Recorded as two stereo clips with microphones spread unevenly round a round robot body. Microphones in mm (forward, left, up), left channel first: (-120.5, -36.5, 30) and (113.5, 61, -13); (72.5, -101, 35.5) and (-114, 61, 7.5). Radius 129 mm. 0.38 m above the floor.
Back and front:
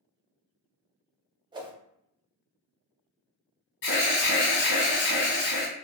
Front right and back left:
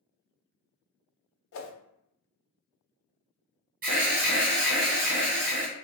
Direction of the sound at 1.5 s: 30° right.